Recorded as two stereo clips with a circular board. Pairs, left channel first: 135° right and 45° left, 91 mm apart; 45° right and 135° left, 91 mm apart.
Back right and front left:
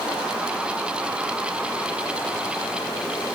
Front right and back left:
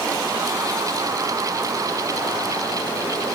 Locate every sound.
Only background noise.